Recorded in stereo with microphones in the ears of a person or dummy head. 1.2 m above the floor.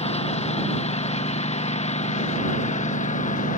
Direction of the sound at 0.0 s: 30° left (ahead or behind).